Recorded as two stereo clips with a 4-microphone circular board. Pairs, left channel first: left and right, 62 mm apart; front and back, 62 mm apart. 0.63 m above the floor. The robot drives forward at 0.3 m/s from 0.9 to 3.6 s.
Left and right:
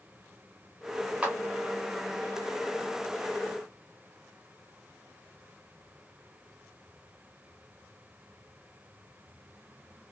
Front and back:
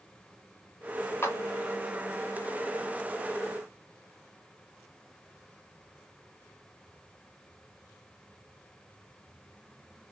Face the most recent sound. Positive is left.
turn(degrees=-90)